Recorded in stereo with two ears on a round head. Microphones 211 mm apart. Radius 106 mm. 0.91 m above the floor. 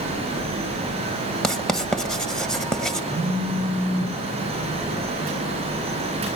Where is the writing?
Centre (ahead or behind), 1.0 m.